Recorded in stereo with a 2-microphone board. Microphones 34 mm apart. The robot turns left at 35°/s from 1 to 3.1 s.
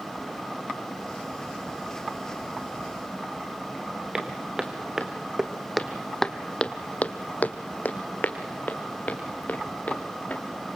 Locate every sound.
4.1 s footsteps: 25° right (ahead or behind), 2.5 m; by 10.4 s 50° left (ahead or behind), 3.5 m